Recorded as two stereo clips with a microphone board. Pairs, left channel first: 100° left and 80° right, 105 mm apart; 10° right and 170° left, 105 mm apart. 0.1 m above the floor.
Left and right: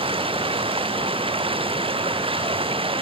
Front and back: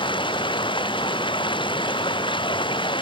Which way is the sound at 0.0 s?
50° right.